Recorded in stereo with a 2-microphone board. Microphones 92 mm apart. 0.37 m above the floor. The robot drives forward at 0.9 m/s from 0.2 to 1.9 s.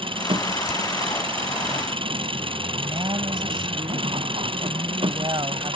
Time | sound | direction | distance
0.0 | an engine running | 70° right (ahead or behind) | ?
2.8 | a woman speaking | 60° right (ahead or behind) | ?